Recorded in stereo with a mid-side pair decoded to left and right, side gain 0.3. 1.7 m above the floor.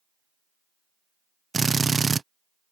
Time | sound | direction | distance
1.5 | a drill | 40° right | ?